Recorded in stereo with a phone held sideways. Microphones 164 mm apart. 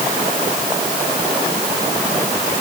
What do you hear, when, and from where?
Only background noise.